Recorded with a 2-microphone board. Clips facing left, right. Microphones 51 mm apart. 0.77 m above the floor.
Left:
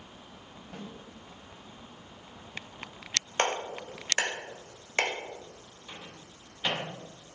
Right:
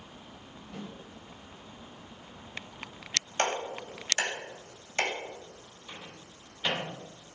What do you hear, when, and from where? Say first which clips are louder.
0.7 s a snare drum: right 1 dB; 55° left (ahead or behind), 4 m
3.4 s a clap: left 1 dB; 35° left (ahead or behind), 2.5 m
5.9 s a microwave: even; 10° left (ahead or behind), 2.5 m